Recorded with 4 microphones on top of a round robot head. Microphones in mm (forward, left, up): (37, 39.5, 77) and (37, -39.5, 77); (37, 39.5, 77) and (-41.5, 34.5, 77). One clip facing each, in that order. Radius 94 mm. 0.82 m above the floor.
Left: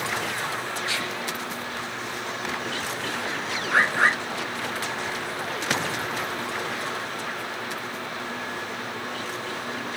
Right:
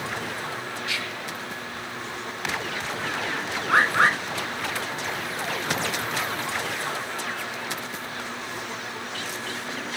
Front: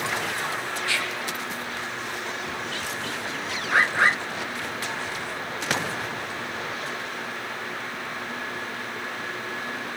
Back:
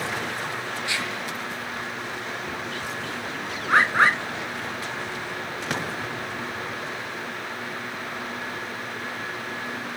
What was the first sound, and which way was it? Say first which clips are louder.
Whispering: left 2 dB, front 1 dB; 120° left.